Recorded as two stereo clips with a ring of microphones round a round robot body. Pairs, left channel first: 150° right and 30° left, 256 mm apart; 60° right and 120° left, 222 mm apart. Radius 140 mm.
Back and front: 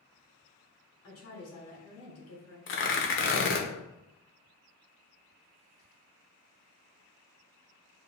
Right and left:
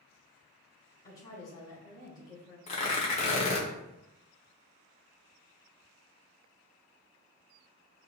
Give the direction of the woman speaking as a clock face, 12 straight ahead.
4 o'clock.